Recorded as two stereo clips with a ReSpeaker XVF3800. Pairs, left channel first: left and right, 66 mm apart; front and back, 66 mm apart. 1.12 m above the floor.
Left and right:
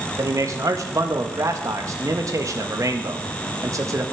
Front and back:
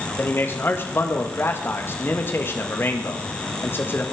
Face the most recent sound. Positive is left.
turn(degrees=-55)